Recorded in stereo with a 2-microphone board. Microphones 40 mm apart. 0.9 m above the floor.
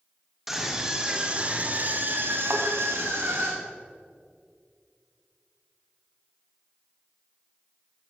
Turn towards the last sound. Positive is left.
turn(degrees=-50)  # may be behind; listen again after turning